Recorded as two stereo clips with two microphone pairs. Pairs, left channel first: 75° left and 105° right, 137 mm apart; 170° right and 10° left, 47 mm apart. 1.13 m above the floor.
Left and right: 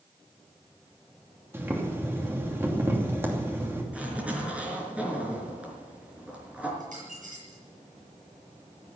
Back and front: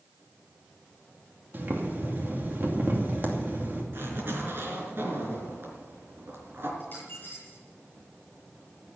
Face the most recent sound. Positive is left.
turn(degrees=-115)